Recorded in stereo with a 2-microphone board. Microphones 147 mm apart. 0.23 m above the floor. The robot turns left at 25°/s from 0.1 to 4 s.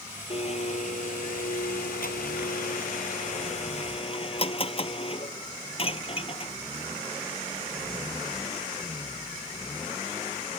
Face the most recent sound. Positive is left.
turn(degrees=40)